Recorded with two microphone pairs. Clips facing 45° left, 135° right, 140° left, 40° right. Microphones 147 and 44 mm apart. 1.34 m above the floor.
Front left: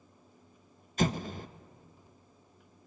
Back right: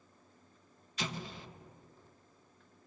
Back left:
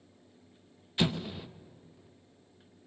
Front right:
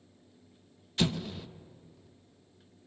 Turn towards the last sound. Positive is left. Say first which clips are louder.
# front left 10 dB, even
turn(degrees=65)